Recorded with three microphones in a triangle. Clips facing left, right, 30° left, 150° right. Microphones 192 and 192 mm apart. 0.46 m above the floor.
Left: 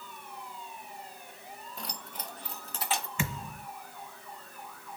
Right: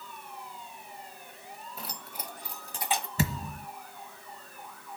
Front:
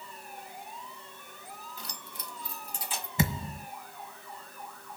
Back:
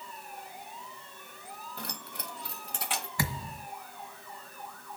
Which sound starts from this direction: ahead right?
A thud, at 3.2 s.